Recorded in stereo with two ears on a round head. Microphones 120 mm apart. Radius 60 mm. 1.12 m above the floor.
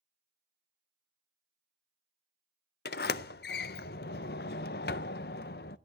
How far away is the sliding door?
About 0.5 m.